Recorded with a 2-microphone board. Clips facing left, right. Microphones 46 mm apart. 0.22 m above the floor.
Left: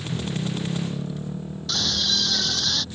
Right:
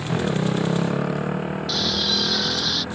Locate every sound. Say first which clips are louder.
0.0 s a motorcycle: right 6 dB; 85° right
1.7 s a scream: even; 10° right (ahead or behind)